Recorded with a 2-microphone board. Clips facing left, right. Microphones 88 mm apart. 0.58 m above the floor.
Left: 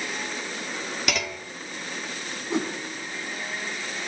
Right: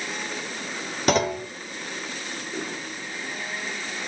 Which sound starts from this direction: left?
A whoosh, at 2.5 s.